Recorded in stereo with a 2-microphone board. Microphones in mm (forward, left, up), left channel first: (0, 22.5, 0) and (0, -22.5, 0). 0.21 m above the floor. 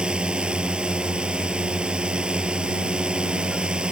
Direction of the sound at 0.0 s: 25° right (ahead or behind).